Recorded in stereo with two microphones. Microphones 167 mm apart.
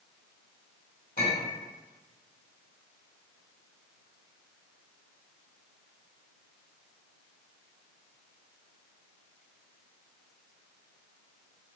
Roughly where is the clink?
Left.